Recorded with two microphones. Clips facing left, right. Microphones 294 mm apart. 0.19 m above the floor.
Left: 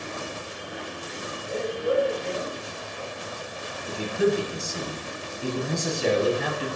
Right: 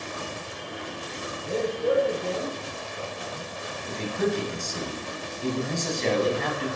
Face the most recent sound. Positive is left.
turn(degrees=10)  # may be behind; listen again after turning